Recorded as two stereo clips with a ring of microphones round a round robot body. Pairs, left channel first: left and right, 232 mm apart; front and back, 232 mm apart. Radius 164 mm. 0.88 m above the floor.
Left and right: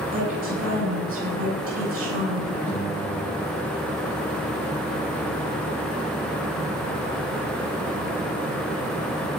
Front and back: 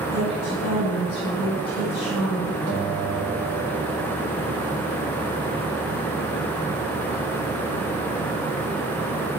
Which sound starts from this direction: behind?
A guitar, at 2.7 s.